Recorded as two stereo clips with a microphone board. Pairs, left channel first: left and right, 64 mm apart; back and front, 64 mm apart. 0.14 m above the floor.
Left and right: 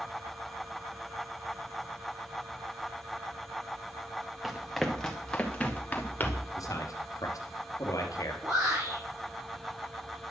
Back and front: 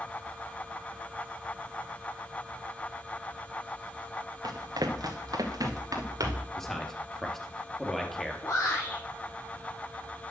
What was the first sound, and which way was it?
Running footsteps, 5° right.